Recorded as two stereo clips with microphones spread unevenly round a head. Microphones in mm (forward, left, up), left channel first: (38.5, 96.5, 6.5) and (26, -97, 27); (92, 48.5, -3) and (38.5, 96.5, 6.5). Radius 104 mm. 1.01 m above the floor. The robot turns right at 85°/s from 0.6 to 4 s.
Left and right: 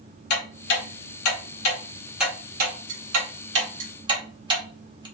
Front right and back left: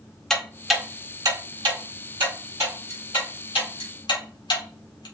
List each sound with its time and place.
0.3 s ticking: 45° left, 1.5 m; by 5.1 s 25° right, 1.5 m